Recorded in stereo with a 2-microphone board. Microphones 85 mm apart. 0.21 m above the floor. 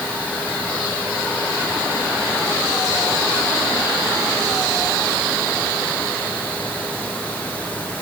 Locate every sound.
Only background noise.